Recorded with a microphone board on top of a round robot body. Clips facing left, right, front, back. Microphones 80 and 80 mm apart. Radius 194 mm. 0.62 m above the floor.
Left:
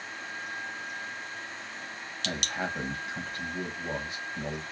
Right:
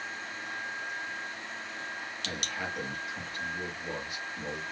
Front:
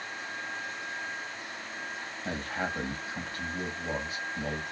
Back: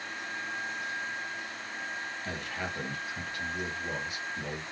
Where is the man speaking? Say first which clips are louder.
Left 5 dB, front 7 dB; 45° left, 1.2 m.